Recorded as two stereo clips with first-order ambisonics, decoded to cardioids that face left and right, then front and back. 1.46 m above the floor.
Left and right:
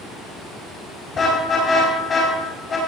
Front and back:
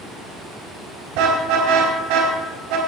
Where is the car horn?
160° left, 5 m.